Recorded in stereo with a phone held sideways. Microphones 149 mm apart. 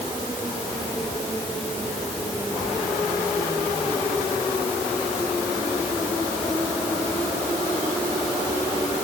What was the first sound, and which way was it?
Only background noise.